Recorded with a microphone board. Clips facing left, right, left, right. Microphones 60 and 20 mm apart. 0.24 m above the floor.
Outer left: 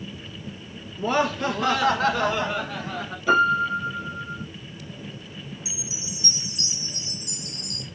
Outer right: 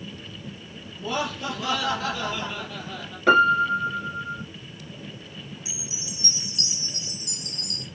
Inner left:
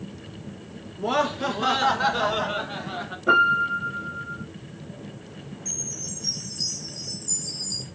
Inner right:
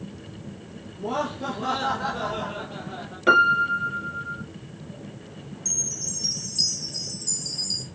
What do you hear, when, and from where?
1.0 s laughter: 60° left (ahead or behind), 2.5 m; by 3.2 s 65° left (ahead or behind), 2.5 m
3.3 s a piano: 70° right (ahead or behind), 2.5 m
5.7 s a chime: 65° right (ahead or behind), 3.5 m